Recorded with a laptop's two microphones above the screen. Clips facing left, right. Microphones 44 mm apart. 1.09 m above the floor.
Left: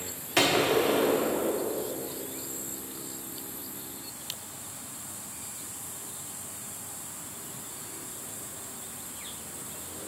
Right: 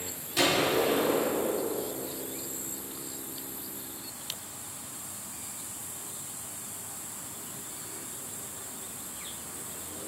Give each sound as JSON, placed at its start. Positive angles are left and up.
{"t": 0.4, "sound": "a gunshot", "side_deg": 70, "distance_m": 1.1}